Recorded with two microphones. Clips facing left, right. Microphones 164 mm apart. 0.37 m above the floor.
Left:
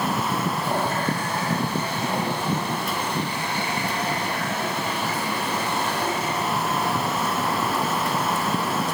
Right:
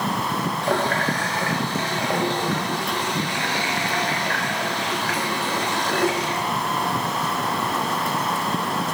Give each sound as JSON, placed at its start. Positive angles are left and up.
{"t": 0.6, "sound": "a running tap", "side_deg": -80, "distance_m": 3.5}